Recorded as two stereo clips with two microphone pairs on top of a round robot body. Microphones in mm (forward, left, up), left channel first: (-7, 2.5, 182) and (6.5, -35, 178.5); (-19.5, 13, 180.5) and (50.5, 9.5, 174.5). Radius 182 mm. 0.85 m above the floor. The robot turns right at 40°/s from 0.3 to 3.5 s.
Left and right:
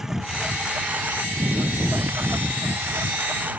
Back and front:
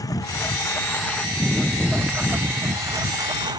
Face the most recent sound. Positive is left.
turn(degrees=-20)